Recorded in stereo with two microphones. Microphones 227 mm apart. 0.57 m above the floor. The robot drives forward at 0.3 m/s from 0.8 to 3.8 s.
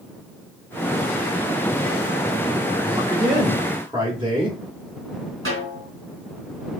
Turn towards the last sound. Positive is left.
turn(degrees=-70)  # may be behind; listen again after turning